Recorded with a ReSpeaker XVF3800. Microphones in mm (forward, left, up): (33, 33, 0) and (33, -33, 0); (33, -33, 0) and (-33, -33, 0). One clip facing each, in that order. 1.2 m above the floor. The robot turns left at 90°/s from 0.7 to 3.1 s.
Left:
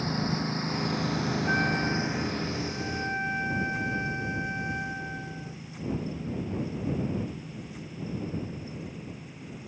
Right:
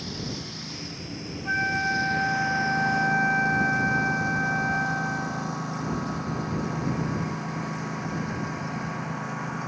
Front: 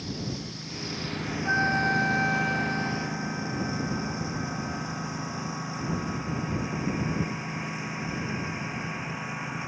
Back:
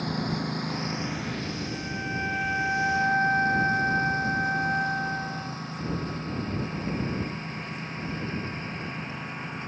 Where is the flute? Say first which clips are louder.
Right 4 dB, front 9 dB; straight ahead; by 5.6 s 150° right.